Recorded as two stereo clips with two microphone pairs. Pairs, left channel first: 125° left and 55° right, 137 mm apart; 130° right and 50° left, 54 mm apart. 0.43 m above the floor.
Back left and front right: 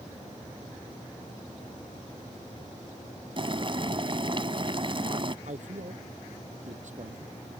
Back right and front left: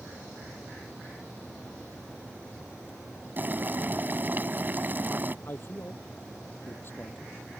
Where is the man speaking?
85° right.